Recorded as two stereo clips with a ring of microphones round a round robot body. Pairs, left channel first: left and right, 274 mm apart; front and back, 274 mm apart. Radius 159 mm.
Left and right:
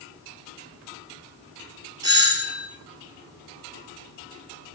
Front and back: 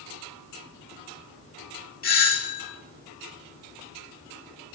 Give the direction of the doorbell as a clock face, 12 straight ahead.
1 o'clock.